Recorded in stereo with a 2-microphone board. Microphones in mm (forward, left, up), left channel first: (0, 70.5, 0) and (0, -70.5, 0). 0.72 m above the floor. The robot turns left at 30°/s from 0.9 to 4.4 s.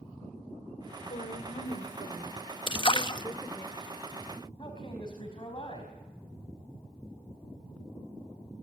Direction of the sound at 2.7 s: 35° left (ahead or behind).